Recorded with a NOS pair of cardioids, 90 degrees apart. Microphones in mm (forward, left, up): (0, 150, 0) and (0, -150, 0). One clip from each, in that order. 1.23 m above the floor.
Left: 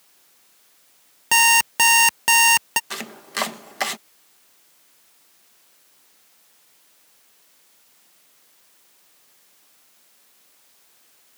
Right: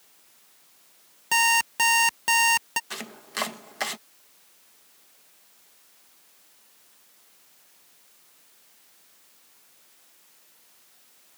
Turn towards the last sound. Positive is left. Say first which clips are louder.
# left 5 dB
turn(degrees=25)